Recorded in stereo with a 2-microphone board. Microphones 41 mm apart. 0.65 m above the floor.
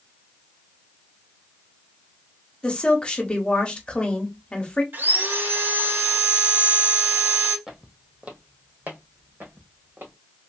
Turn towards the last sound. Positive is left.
turn(degrees=-60)  # may be behind; listen again after turning